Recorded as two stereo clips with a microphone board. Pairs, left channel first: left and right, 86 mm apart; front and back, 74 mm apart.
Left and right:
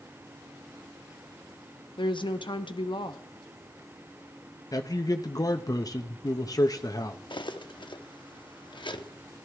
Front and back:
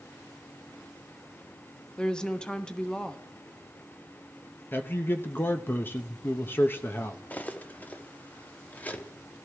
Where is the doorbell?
I don't hear a doorbell.